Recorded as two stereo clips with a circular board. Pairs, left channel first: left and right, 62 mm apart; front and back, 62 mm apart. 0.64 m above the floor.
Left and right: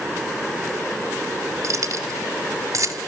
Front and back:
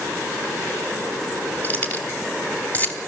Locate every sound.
1.6 s keys jangling: 60° right, 3 m